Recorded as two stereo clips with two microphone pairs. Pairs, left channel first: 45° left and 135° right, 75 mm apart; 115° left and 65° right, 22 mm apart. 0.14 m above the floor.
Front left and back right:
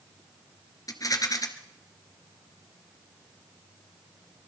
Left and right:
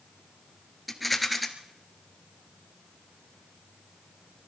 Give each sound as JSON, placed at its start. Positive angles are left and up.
{"t": 0.9, "sound": "a rattle", "azimuth_deg": 25, "distance_m": 1.7}